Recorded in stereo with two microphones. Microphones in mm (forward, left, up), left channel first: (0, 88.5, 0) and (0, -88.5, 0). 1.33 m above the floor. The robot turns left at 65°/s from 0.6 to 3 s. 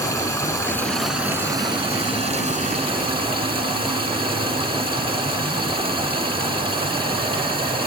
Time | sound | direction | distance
0.0 | running water | 30° left | 1.5 m